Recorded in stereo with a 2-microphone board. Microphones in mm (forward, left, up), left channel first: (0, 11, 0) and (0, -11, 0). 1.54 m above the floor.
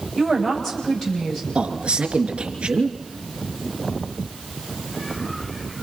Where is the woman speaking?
15° left (ahead or behind), 9 m.